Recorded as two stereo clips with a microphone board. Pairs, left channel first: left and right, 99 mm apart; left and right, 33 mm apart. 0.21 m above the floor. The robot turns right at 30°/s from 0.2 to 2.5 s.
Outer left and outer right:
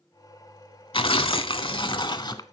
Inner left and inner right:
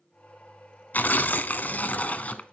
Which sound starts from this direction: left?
Tearing paper, at 0.9 s.